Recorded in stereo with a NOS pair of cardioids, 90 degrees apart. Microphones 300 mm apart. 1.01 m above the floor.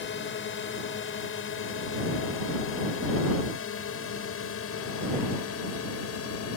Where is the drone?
45° left; by 6.6 s 55° left.